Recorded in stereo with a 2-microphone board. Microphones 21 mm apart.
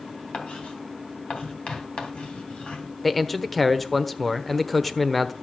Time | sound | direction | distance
0.3 | writing | 70° left (ahead or behind) | 2.5 m
3.0 | a man speaking | 5° left (ahead or behind) | 1.0 m